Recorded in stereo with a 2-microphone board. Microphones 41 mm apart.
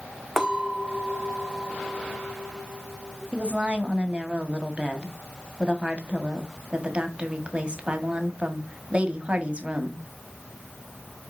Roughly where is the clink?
Centre.